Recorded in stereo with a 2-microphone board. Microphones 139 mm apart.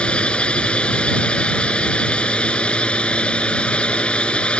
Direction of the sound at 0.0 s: 10° left (ahead or behind).